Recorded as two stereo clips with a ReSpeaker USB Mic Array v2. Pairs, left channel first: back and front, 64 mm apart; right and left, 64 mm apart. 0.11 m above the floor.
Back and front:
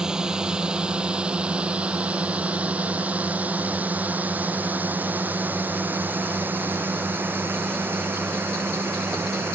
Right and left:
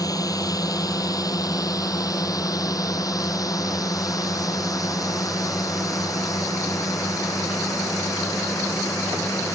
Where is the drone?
80° right; by 9.6 s 55° right.